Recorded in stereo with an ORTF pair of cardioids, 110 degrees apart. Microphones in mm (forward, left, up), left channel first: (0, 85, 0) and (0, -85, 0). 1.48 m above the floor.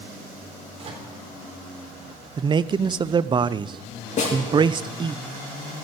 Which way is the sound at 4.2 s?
45° left.